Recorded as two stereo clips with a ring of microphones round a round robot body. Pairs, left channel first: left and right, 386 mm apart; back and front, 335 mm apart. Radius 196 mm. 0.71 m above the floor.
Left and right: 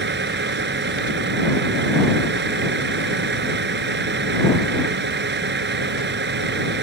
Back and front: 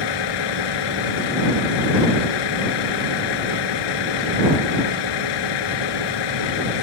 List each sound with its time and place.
0.0 s a vehicle: 155° right